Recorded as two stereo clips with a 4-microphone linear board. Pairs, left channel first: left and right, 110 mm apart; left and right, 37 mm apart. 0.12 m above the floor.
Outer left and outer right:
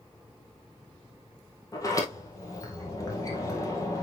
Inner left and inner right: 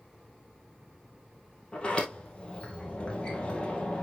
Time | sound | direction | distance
1.7 | a sliding door | 30° left (ahead or behind) | 2 m